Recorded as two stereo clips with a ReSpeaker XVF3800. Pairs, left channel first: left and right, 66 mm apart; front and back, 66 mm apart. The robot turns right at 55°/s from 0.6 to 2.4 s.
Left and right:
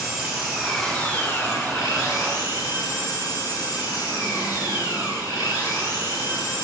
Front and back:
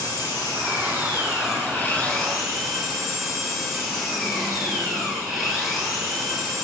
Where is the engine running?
5° right, 4 m; by 6.6 s 95° left, 4 m.